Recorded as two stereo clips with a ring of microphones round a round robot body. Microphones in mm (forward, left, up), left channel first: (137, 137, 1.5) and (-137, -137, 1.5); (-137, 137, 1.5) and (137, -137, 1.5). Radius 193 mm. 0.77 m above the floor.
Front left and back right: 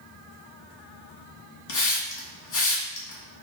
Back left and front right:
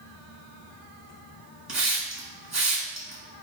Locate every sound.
1.7 s a hiss: 40° left, 1.3 m